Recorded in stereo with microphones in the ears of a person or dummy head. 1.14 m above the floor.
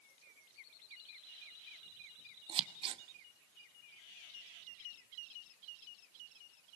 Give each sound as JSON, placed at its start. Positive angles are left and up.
{"t": 2.5, "sound": "scissors", "side_deg": -30, "distance_m": 1.0}